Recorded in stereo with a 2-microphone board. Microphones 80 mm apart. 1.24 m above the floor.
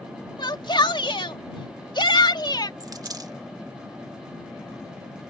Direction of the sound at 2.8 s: 50° right (ahead or behind).